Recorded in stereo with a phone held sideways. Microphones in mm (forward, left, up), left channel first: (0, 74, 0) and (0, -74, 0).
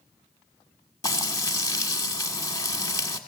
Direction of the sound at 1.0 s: 25° left (ahead or behind).